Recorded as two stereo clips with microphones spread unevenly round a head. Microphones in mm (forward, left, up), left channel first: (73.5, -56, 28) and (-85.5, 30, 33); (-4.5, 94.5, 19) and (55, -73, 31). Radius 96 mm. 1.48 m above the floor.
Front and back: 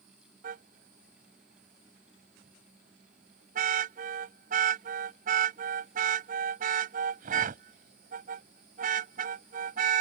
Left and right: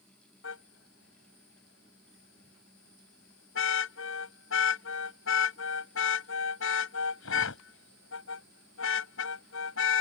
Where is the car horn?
105° left.